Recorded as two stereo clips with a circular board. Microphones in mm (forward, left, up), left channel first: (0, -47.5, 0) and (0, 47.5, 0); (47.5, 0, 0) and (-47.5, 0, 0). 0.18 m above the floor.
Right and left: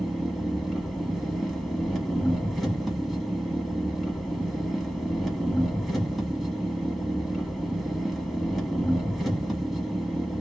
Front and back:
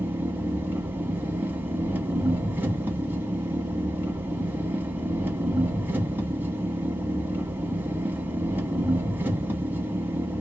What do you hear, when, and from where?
0.0 s an engine running: 175° right, 1.0 m